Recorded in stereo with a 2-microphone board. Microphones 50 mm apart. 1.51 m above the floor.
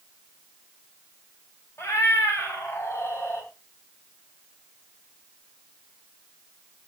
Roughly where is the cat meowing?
Left.